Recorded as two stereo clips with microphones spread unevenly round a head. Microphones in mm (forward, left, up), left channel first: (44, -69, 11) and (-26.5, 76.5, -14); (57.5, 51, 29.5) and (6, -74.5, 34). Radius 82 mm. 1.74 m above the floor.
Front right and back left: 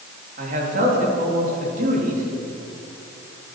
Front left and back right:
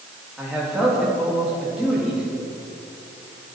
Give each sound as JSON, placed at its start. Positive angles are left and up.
{"t": 0.4, "sound": "a man speaking", "azimuth_deg": 160, "distance_m": 4.0}